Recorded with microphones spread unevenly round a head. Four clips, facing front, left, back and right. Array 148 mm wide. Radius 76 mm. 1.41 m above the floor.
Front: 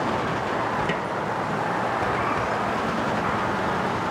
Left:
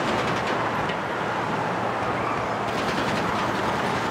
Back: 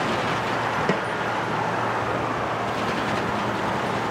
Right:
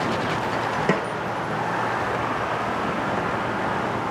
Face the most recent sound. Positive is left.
turn(degrees=-110)